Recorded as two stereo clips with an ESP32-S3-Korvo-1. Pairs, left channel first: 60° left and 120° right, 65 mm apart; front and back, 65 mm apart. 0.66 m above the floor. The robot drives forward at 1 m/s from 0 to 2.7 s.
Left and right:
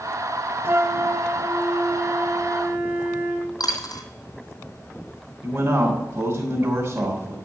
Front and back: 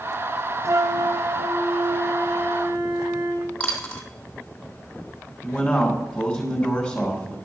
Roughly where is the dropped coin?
Left.